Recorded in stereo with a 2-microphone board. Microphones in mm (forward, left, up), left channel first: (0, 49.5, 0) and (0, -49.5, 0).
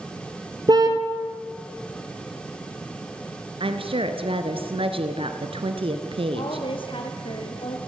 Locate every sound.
0.7 s a car horn: 45° right (ahead or behind), 2.5 m
3.6 s a woman speaking: 65° right (ahead or behind), 2.5 m
6.3 s a woman speaking: 60° left (ahead or behind), 4 m